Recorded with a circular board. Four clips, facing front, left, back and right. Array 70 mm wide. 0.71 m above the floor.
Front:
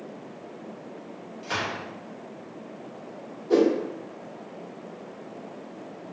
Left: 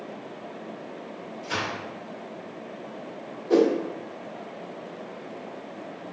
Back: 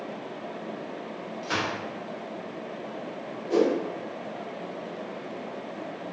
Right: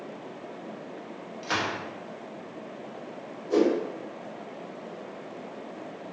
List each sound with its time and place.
1.4 s a gunshot: 105° right, 0.9 m
3.5 s a whoosh: 60° left, 0.6 m